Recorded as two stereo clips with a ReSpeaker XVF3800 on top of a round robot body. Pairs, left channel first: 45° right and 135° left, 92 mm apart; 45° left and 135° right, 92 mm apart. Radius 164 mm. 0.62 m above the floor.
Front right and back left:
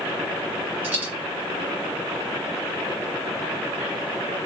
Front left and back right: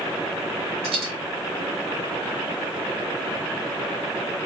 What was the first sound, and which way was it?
A dropped coin, 150° right.